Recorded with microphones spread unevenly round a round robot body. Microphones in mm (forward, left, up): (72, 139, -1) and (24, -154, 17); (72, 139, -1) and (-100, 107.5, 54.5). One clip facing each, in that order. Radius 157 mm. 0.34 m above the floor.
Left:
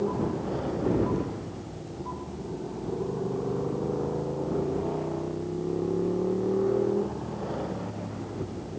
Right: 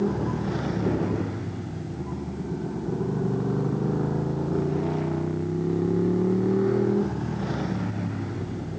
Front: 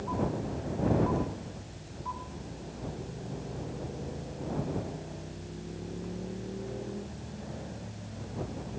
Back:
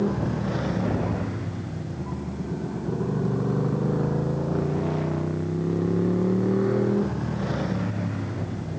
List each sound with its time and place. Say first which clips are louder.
0.0 s a motorcycle: right 2 dB, back 7 dB; 155° right